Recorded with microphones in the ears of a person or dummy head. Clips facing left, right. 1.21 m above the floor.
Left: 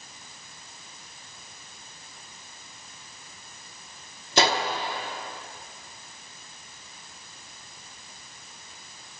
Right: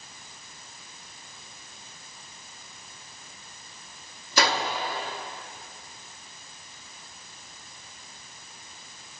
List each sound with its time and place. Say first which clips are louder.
4.4 s a gunshot: left 2 dB; 25° left (ahead or behind), 1.1 m